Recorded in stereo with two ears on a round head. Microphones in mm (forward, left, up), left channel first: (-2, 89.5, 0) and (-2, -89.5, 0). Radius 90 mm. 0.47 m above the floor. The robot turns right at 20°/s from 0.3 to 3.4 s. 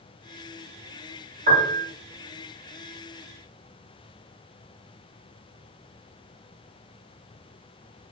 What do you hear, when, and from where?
1.5 s a piano: 35° right (ahead or behind), 1.1 m; by 1.9 s 45° right (ahead or behind), 1.1 m